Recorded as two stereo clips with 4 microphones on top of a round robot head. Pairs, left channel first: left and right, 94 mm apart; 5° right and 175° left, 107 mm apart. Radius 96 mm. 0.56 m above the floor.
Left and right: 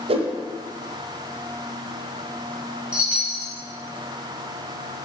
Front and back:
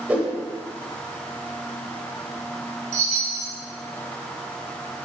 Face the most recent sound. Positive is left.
turn(degrees=-170)